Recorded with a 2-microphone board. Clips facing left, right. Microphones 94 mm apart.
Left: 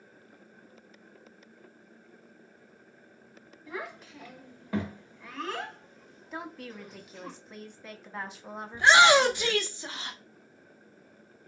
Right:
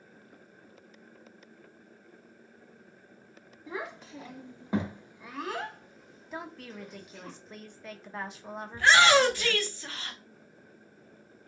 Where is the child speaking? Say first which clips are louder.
Right 1 dB; 25° right (ahead or behind), 1.1 m; by 7.3 s 10° left (ahead or behind), 1.3 m.